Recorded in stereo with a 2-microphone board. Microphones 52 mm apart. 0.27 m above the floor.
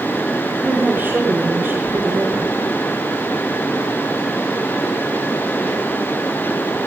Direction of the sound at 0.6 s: 40° right (ahead or behind).